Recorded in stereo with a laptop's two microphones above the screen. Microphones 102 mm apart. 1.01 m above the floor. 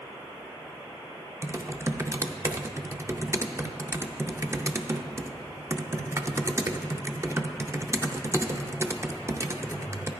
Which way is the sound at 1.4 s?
30° right (ahead or behind).